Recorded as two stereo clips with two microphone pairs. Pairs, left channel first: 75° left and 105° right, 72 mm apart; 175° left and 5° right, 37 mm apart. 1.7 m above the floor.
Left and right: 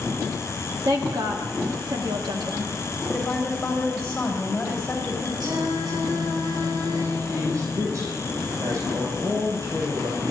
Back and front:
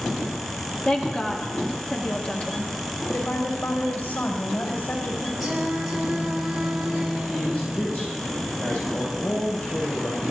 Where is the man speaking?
145° right, 6 m.